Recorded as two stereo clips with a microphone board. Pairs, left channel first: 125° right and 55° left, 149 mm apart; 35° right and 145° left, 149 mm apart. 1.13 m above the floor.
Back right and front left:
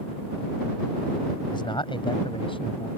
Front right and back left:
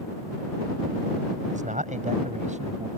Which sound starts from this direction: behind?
A man speaking, at 1.5 s.